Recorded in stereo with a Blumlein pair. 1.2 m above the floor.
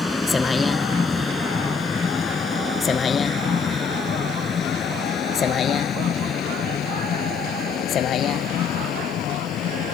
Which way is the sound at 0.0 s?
10° left.